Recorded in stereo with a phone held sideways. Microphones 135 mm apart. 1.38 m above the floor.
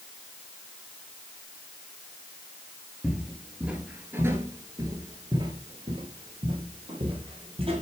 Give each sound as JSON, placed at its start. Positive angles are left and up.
{"t": 3.0, "sound": "footsteps", "side_deg": 0, "distance_m": 1.5}